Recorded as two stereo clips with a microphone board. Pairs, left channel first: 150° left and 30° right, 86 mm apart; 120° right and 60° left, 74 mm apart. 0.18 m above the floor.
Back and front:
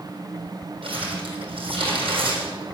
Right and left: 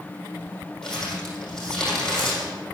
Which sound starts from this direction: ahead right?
Crumpling, at 0.8 s.